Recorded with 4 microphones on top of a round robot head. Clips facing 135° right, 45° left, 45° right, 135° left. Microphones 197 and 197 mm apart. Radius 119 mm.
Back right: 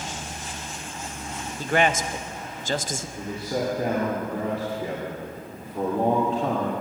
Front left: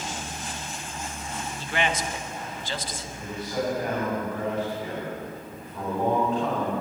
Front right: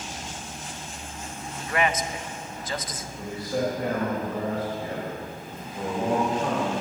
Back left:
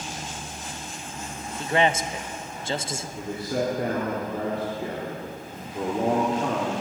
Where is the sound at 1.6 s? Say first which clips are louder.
Back right 6 dB, back left 3 dB; 170° right, 0.6 m.